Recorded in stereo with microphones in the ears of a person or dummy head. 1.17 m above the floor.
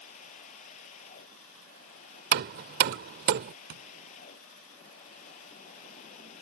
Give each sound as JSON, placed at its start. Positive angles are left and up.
{"t": 0.0, "sound": "a machine running", "side_deg": 40}
{"t": 2.3, "sound": "hammering", "side_deg": -55}
{"t": 3.7, "sound": "tapping", "side_deg": -70}